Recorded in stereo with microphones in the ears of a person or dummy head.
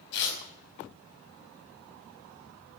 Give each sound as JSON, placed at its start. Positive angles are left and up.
{"t": 0.1, "sound": "tearing paper", "side_deg": 60, "distance_m": 4.0}